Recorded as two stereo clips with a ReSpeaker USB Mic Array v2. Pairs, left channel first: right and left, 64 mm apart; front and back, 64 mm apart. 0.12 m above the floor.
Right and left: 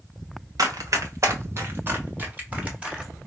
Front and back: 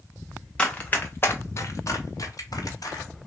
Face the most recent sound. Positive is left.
turn(degrees=20)